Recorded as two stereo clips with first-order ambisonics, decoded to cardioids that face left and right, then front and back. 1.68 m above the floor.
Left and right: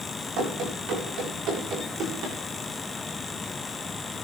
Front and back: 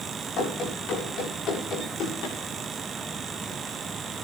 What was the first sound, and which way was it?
Running footsteps, 55° right.